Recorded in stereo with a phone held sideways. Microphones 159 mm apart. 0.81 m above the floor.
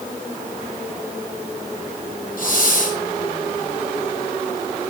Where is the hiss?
65° left (ahead or behind), 4.5 m.